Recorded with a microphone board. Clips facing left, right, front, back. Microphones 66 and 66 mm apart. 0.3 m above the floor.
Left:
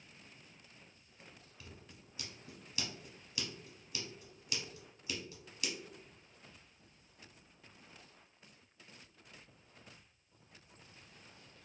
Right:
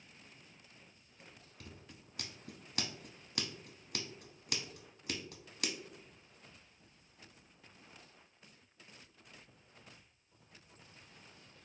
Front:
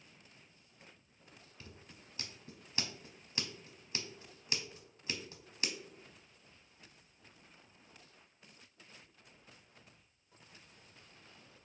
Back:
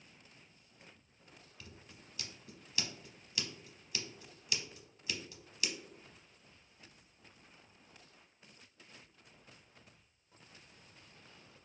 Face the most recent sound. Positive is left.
turn(degrees=-60)